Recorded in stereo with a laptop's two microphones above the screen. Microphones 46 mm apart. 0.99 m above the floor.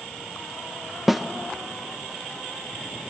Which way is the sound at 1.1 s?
Centre (ahead or behind).